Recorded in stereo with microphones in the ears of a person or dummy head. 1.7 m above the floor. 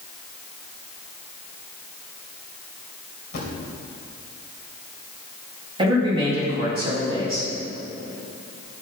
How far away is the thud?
About 2.5 m.